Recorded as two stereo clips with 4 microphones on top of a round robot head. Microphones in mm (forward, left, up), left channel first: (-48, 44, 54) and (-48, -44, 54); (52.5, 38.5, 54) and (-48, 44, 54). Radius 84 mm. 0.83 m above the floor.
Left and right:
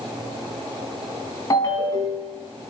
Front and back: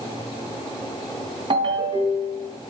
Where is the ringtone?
140° left, 3 m.